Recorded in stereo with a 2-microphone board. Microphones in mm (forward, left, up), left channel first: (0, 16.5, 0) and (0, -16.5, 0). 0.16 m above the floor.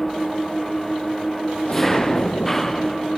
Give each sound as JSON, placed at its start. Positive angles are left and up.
{"t": 0.0, "sound": "an engine running", "side_deg": 10}
{"t": 1.6, "sound": "an explosion", "side_deg": 45}